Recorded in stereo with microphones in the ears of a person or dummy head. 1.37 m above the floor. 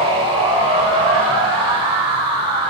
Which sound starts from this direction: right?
A machine running, at 0.0 s.